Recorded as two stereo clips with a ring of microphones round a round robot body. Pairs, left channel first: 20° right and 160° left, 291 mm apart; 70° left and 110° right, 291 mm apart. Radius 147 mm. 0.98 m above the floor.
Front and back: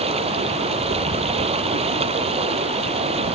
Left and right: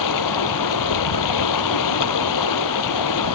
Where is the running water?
85° left.